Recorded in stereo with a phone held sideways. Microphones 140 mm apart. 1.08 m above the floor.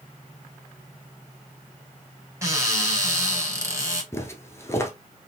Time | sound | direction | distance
2.4 | a cupboard door | 20° right (ahead or behind) | 2.5 m
4.1 | footsteps | 20° left (ahead or behind) | 1.1 m